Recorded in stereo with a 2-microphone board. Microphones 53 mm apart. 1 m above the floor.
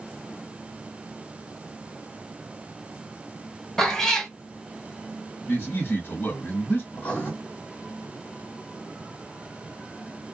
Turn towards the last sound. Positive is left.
turn(degrees=35)  # may be behind; listen again after turning